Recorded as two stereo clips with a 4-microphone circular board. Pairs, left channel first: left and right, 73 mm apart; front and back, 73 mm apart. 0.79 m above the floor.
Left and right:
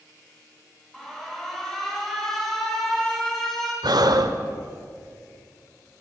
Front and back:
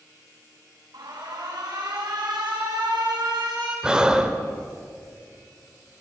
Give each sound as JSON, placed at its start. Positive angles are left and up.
{"t": 0.9, "sound": "an alarm", "azimuth_deg": 175, "distance_m": 4.5}
{"t": 3.8, "sound": "breathing", "azimuth_deg": -105, "distance_m": 1.2}